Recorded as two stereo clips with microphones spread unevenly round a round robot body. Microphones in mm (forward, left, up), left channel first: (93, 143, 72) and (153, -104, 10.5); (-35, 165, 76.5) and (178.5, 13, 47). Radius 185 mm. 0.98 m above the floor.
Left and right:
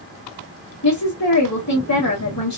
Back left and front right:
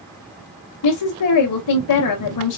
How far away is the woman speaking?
About 0.7 m.